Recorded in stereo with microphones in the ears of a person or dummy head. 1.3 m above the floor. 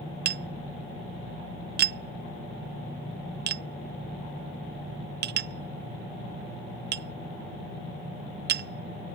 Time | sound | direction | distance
0.2 | tapping | 50° right (ahead or behind) | ?